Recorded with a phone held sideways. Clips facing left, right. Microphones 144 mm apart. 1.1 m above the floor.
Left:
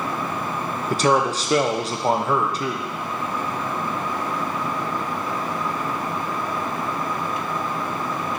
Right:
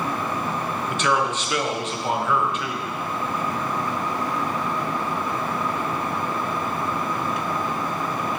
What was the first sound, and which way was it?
A man speaking, 35° left (ahead or behind).